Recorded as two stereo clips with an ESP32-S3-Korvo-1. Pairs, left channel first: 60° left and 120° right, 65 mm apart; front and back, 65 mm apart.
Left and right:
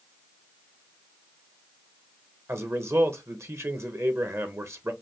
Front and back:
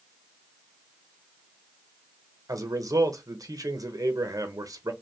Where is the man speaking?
165° right, 1.1 m.